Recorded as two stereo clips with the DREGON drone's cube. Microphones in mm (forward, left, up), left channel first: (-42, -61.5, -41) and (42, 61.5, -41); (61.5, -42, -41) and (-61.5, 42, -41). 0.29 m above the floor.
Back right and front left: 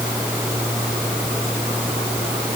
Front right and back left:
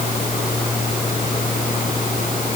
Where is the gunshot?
I don't hear a gunshot.